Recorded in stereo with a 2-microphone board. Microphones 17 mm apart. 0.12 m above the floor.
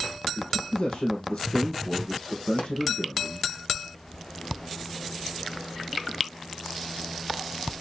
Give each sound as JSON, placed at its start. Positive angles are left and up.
{"t": 0.4, "sound": "a man speaking", "side_deg": 70, "distance_m": 3.5}
{"t": 2.6, "sound": "a pop", "side_deg": 80, "distance_m": 2.5}